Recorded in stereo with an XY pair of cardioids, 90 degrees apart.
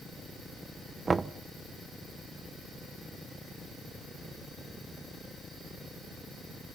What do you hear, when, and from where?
1.1 s knocking: 35° right, 0.6 m